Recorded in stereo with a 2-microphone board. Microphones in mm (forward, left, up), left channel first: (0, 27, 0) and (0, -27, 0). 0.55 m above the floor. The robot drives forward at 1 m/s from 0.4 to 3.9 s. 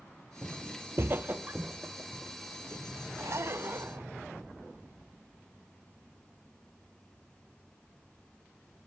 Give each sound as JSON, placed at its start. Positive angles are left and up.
{"t": 0.4, "sound": "footsteps", "side_deg": -35, "distance_m": 1.2}
{"t": 3.2, "sound": "a zipper", "side_deg": -65, "distance_m": 0.7}